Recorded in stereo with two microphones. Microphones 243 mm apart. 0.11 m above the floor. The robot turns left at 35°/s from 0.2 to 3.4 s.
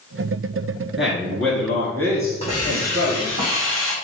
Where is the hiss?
155° left, 1.9 m; by 4.0 s 120° left, 1.9 m.